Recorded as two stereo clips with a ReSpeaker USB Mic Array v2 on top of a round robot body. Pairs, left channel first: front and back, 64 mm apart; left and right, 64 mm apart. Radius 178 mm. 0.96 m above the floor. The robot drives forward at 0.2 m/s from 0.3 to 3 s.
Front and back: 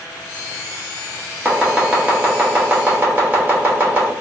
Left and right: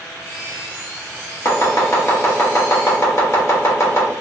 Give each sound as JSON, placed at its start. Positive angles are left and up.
{"t": 1.4, "sound": "chopping", "azimuth_deg": 105, "distance_m": 1.2}